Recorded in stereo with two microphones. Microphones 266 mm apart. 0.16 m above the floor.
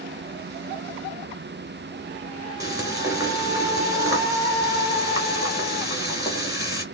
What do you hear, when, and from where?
2.6 s frying: 15° right (ahead or behind), 1.9 m